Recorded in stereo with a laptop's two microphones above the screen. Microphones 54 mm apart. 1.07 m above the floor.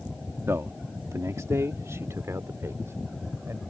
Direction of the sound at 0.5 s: 55° right (ahead or behind).